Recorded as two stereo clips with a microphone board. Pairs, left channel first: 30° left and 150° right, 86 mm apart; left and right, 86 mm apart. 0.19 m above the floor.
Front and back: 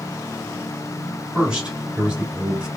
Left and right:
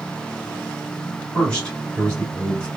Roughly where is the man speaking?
Behind left.